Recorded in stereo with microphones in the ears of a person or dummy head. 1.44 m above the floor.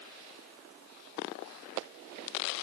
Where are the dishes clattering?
I don't hear dishes clattering.